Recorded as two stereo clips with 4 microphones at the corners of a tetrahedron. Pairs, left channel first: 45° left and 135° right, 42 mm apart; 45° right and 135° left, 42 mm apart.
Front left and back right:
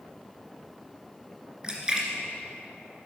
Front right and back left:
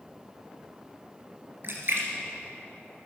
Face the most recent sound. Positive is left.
turn(degrees=155)